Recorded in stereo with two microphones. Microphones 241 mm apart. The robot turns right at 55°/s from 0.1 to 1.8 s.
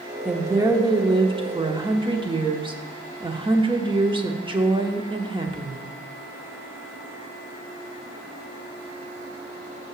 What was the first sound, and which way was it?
A woman speaking, 5° right (ahead or behind).